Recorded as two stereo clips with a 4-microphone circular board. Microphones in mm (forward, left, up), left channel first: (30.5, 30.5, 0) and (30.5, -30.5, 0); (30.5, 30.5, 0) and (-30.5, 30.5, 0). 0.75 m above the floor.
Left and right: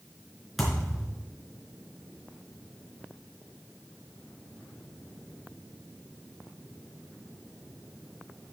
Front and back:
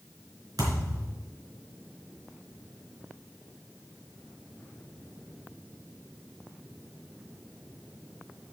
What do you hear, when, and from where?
0.6 s a thud: straight behind, 4 m